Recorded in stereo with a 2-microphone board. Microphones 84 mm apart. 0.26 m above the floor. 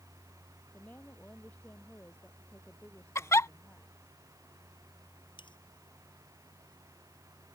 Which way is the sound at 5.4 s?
70° left (ahead or behind).